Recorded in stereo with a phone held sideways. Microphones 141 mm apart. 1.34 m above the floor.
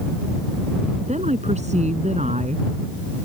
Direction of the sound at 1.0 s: 60° right (ahead or behind).